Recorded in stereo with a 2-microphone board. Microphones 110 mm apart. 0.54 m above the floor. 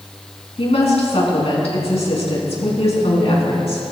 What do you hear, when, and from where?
0.6 s a woman speaking: 80° left, 4.5 m